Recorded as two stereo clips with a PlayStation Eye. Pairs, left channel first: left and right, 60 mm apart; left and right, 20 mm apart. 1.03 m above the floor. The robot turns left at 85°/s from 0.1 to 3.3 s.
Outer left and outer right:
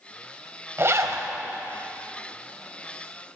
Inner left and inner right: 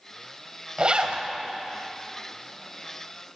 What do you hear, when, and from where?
0.8 s a zipper: 50° right, 1.4 m; by 1.3 s 95° right, 1.4 m